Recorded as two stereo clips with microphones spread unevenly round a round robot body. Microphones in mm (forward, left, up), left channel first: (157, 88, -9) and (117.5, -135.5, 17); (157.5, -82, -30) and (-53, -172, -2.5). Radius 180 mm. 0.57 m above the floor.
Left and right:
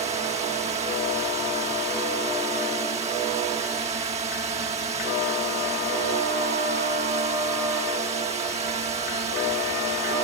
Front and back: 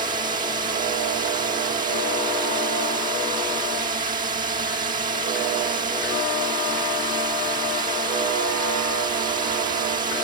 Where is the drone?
145° right.